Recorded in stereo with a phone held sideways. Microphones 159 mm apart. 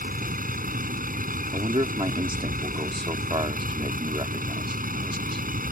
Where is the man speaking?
30° right (ahead or behind).